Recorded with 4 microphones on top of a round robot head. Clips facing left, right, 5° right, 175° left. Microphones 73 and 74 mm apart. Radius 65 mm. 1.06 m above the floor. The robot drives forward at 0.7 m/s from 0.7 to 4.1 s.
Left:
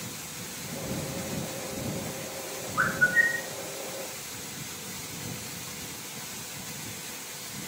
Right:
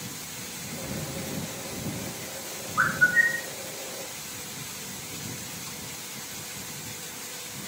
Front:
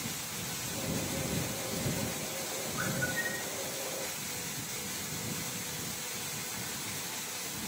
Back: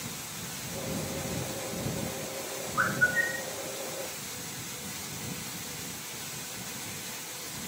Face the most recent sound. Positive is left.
turn(degrees=-170)